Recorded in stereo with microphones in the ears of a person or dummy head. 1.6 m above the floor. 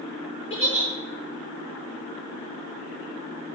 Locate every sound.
0.5 s a giggle: 35° left (ahead or behind), 3 m